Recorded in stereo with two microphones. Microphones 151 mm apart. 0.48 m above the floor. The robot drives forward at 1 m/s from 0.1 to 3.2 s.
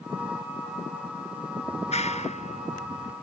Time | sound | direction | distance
1.6 | a clap | 45° left (ahead or behind) | ?